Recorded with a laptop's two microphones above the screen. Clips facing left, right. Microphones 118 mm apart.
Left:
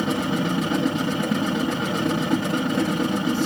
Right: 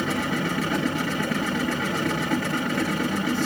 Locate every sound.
0.0 s a machine running: 20° left (ahead or behind), 1.6 m